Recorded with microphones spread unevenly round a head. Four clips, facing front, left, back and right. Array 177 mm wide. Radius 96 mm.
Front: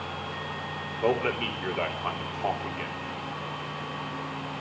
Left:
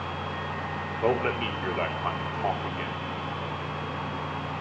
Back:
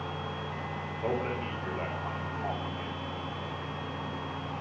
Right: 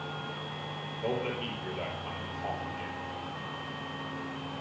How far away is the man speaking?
About 3 m.